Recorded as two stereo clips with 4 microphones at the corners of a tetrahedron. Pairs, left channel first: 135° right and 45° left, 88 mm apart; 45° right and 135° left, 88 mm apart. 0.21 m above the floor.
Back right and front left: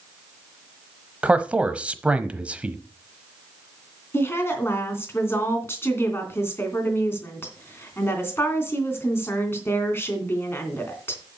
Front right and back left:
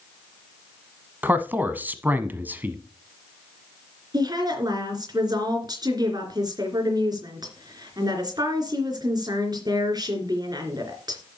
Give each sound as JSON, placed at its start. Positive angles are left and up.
{"t": 1.2, "sound": "a man speaking", "azimuth_deg": 105, "distance_m": 1.0}
{"t": 4.1, "sound": "a woman speaking", "azimuth_deg": 165, "distance_m": 3.0}